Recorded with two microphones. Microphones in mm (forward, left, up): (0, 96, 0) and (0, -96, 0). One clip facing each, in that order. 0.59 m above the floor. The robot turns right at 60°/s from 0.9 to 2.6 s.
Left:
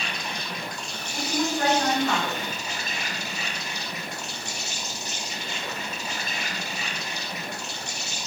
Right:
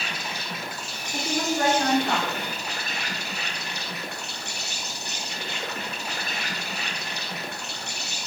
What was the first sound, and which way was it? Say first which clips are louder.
An insect: left 1 dB; 175° right.